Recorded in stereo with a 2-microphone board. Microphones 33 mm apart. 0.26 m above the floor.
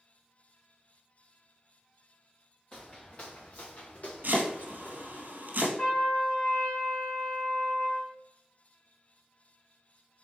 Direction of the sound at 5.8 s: 25° left (ahead or behind).